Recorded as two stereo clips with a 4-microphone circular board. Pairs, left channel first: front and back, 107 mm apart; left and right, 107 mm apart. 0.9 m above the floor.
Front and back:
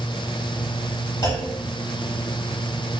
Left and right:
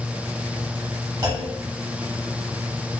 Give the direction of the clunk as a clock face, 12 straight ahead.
2 o'clock.